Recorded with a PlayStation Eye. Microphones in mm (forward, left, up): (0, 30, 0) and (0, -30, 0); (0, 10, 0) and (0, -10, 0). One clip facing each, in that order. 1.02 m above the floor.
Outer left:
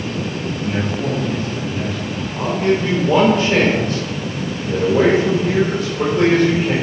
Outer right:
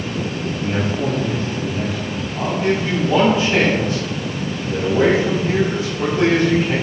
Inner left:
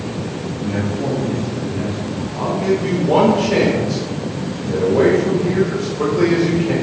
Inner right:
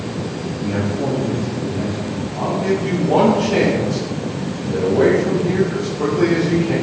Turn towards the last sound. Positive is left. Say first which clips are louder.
# outer left 2 dB, inner left 1 dB
turn(degrees=60)  # may be behind; listen again after turning